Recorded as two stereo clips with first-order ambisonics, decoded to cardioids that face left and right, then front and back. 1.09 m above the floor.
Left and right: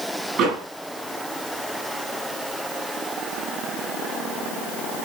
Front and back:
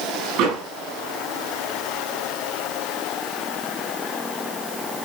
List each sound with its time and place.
0.4 s a door slam: 145° right, 8.5 m